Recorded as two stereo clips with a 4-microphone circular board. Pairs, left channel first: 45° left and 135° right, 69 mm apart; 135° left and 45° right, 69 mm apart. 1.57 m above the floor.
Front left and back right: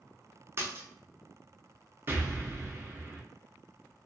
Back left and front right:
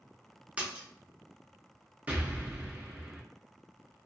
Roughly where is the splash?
Right.